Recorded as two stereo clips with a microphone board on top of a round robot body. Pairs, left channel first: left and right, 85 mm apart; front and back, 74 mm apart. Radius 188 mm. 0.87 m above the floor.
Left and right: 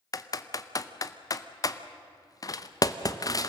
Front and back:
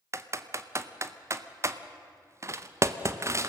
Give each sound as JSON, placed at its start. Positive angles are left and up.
{"t": 0.1, "sound": "typing on a keyboard", "azimuth_deg": 135, "distance_m": 1.0}